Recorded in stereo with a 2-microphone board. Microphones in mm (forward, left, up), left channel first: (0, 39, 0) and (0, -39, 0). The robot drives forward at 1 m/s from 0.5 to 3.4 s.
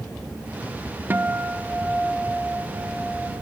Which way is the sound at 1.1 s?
25° right (ahead or behind).